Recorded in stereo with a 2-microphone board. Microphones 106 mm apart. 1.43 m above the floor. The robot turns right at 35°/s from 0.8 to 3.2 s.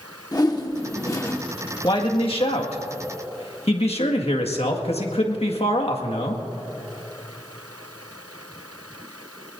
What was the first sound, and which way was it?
A whoosh, 40° left (ahead or behind).